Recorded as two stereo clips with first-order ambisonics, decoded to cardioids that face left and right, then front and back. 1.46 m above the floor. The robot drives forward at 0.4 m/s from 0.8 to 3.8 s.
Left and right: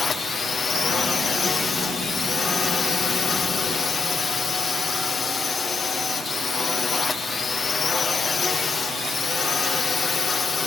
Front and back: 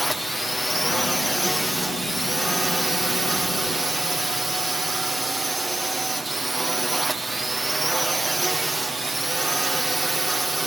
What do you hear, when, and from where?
0.0 s a drone: 90° left; by 10.7 s 115° left